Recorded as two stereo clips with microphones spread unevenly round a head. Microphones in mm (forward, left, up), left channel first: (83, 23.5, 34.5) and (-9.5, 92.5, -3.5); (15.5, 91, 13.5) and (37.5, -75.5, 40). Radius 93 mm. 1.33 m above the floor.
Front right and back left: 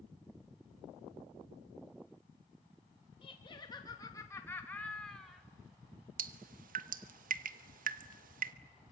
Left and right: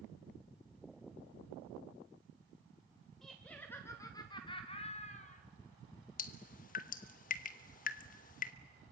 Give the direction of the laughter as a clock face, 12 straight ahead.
12 o'clock.